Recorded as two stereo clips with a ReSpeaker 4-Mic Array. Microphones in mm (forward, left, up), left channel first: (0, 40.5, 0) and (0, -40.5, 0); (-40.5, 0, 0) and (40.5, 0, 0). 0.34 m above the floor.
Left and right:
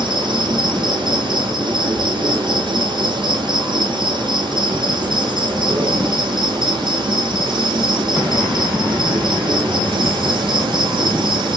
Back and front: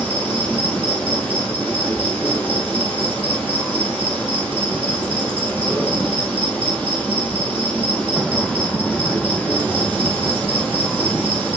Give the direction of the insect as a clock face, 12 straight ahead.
3 o'clock.